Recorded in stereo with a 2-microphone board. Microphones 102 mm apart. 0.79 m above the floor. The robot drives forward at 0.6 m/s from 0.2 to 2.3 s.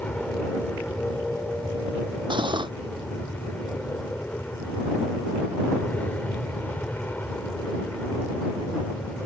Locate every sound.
0.0 s an aircraft: 15° left (ahead or behind)
2.3 s cutlery clinking: 55° right (ahead or behind)